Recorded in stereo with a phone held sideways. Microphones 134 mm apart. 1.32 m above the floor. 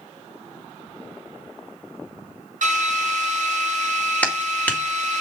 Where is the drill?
80° right, 6.5 m.